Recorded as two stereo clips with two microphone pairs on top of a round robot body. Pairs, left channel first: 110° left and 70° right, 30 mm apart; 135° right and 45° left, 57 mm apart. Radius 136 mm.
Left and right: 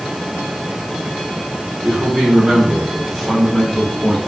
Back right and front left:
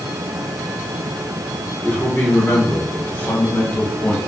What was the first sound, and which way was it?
A man speaking, 95° right.